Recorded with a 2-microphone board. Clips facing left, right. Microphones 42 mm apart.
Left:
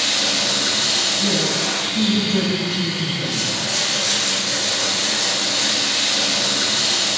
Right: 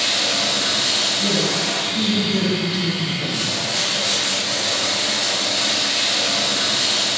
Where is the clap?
I don't hear a clap.